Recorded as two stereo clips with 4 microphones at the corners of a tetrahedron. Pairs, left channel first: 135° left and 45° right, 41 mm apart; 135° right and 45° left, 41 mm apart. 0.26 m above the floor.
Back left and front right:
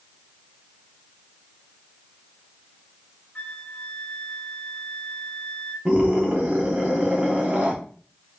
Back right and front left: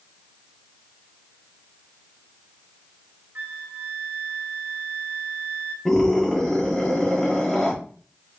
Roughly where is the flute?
Left.